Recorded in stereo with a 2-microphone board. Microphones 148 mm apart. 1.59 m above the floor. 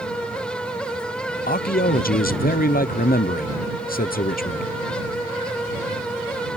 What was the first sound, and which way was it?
A man speaking, 70° left (ahead or behind).